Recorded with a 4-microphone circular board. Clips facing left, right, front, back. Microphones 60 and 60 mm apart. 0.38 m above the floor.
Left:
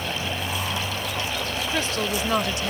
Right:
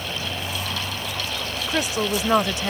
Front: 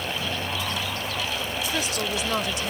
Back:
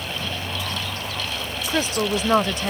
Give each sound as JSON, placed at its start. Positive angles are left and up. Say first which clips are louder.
{"t": 1.7, "sound": "a woman speaking", "louder": "right 4 dB, back 8 dB", "azimuth_deg": -160}